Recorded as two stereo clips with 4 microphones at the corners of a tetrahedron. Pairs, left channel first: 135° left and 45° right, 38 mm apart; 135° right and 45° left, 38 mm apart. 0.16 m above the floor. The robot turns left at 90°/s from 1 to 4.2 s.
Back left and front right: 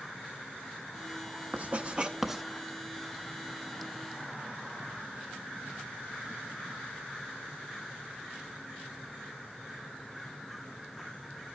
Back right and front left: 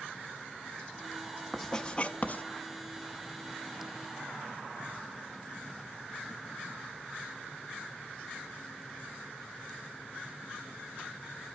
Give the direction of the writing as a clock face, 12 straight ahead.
2 o'clock.